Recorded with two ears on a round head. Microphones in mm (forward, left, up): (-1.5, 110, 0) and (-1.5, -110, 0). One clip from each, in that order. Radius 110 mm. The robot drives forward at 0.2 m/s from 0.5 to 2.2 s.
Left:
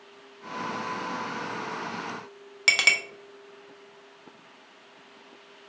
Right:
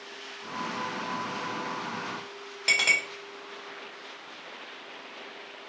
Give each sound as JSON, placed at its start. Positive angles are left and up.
{"t": 2.7, "sound": "a clink", "side_deg": 80, "distance_m": 0.8}